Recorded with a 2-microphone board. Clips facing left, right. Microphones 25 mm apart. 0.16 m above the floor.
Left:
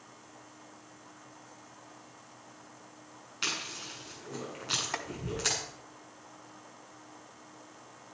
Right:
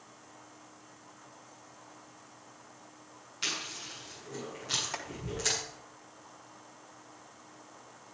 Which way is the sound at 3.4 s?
20° left (ahead or behind).